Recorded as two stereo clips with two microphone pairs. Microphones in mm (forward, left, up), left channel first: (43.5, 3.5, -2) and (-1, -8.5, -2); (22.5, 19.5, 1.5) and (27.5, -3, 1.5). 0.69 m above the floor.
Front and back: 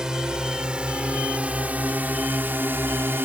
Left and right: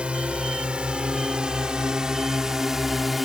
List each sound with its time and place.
0.0 s a drone: 90° right; by 3.3 s 160° right